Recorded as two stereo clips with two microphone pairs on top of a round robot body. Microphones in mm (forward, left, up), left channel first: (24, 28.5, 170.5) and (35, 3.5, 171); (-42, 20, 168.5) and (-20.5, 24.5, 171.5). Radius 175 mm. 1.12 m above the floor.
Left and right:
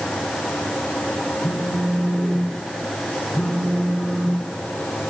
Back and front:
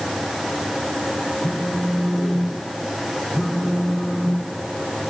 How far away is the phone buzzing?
About 1.6 m.